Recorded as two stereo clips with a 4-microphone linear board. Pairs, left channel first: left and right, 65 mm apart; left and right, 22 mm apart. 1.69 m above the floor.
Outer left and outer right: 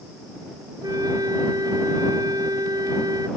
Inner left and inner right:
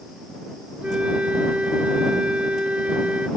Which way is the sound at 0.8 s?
85° right.